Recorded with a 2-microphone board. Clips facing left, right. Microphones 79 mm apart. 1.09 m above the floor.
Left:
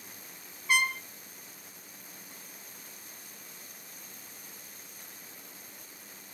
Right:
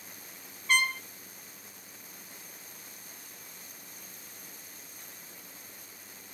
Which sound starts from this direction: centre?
A trumpet, at 0.7 s.